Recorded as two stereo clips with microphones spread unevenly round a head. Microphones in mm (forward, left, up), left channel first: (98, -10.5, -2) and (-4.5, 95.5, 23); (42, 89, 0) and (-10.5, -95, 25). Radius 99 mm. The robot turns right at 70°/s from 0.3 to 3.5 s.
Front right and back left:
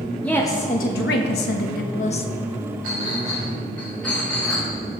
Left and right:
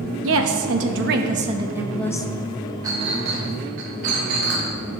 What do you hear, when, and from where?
0.2 s a woman speaking: 130° right, 1.2 m; by 2.3 s 10° left, 1.2 m
2.8 s a clink: straight behind, 3.5 m; by 4.7 s 130° right, 3.5 m